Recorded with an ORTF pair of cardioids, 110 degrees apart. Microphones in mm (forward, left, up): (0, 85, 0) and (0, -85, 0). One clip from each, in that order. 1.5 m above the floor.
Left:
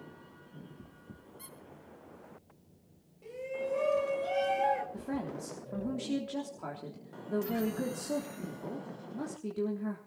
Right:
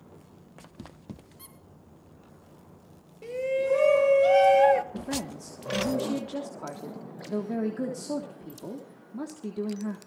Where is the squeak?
10° right, 5.5 m.